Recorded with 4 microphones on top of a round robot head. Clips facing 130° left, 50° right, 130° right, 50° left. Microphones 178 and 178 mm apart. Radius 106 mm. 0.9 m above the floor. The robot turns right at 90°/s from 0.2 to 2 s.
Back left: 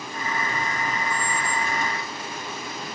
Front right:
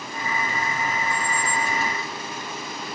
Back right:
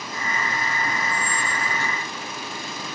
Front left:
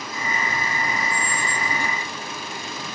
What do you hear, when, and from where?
1.1 s a squeak: 135° left, 1.0 m; by 1.7 s 170° right, 1.0 m